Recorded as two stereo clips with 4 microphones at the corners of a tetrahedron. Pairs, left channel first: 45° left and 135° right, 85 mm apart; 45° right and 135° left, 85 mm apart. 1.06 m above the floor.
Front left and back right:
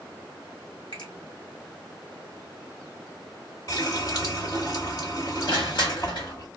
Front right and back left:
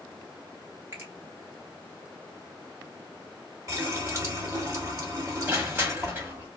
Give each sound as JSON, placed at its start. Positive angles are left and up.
{"t": 0.9, "sound": "a finger snap", "azimuth_deg": 75, "distance_m": 1.4}
{"t": 3.7, "sound": "a running tap", "azimuth_deg": 85, "distance_m": 1.3}
{"t": 5.5, "sound": "crushing", "azimuth_deg": 70, "distance_m": 1.3}